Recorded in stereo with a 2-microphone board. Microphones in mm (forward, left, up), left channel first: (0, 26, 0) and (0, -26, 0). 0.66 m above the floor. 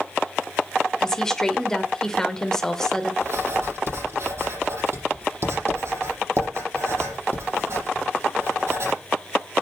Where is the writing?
55° right (ahead or behind), 7 m.